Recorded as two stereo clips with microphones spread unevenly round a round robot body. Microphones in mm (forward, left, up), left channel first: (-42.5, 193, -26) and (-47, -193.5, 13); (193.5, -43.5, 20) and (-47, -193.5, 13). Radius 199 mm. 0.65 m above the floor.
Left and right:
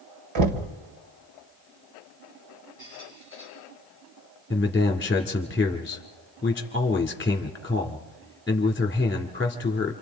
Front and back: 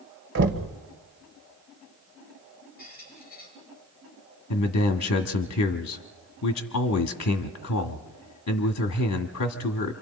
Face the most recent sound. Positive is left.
turn(degrees=10)